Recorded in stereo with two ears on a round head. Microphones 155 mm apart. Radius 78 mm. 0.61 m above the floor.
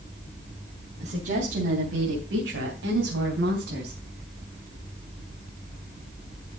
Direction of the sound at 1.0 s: 45° right (ahead or behind).